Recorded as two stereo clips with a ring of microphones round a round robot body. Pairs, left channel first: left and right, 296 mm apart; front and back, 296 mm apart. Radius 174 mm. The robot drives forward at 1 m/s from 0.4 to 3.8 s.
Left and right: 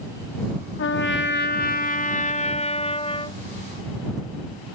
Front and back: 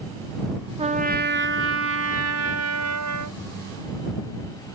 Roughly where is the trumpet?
Behind left.